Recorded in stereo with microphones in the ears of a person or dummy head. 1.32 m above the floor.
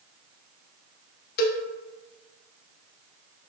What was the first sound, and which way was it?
A cowbell, 65° left (ahead or behind).